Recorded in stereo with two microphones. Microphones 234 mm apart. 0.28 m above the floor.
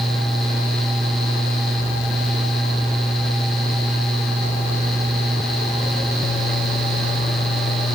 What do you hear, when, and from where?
Only background noise.